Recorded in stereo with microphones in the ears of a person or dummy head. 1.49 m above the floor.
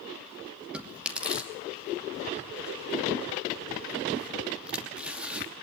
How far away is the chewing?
About 2.5 m.